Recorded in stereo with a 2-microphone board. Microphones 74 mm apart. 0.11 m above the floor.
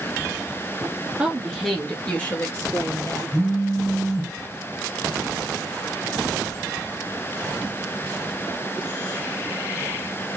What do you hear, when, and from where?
1.2 s a woman speaking: 15° right (ahead or behind), 1.2 m; by 3.2 s 40° left (ahead or behind), 2 m
3.3 s a phone buzzing: 55° left (ahead or behind), 1.2 m